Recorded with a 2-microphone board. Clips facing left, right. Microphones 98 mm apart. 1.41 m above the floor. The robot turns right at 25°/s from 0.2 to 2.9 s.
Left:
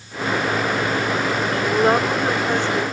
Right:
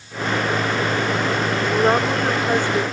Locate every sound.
1.6 s a woman speaking: 170° left; by 2.9 s 160° right